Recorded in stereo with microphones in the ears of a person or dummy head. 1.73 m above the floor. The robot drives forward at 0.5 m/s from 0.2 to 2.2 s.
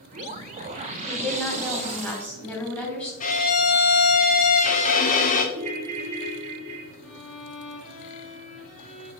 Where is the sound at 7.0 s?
40° left (ahead or behind), 3 m.